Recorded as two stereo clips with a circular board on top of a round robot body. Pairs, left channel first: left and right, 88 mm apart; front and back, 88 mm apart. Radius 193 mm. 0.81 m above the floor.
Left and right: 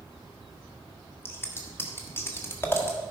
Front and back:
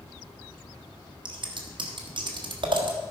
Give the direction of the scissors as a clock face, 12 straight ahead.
7 o'clock.